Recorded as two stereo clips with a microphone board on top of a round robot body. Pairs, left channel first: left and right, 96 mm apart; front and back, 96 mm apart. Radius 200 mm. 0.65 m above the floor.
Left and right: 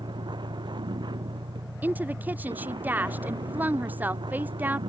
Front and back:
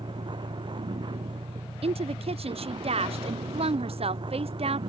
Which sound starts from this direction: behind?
A woman speaking, at 1.8 s.